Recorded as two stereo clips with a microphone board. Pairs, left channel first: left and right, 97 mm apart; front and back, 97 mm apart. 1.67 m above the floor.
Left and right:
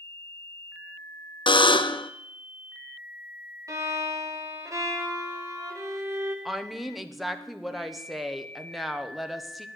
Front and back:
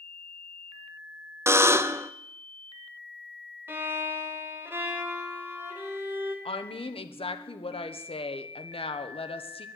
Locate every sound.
1.5 s a buzzer: 115° left, 0.5 m
3.7 s a violin: 125° right, 1.7 m
6.5 s a woman speaking: straight ahead, 1.0 m